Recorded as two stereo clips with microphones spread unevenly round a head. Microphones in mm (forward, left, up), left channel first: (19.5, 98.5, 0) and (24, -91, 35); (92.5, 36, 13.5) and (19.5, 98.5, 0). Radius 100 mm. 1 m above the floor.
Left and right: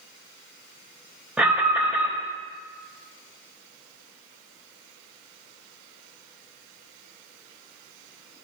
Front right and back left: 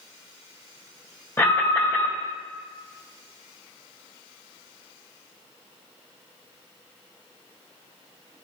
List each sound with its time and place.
1.4 s an alarm: 15° left, 1.2 m